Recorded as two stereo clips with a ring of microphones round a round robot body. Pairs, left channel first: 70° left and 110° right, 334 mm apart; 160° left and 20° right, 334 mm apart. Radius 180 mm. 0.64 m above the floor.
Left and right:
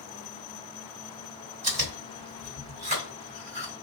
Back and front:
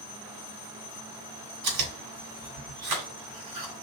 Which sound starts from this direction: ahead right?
Chewing, at 1.6 s.